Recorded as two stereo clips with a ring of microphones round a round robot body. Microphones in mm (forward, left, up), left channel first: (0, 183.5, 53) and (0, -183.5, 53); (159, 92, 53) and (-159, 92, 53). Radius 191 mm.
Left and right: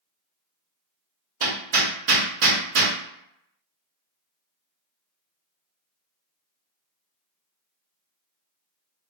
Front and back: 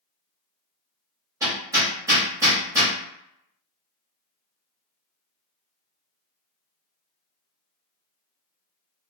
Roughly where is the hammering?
Right.